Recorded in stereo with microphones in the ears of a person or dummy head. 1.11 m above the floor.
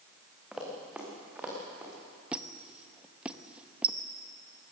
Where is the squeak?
10° right (ahead or behind), 0.7 m.